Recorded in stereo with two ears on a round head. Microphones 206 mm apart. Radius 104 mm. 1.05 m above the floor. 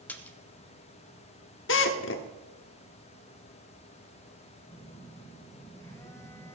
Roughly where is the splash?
Centre.